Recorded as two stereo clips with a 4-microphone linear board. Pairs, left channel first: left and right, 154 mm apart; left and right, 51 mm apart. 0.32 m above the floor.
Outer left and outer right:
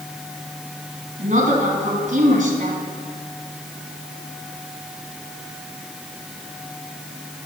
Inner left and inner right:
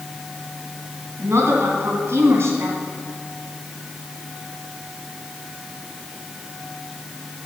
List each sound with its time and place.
1.2 s a woman speaking: 60° right (ahead or behind), 2.5 m